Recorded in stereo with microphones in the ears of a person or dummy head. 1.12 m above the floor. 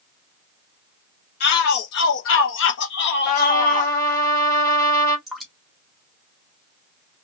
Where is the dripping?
Centre (ahead or behind), 0.8 m.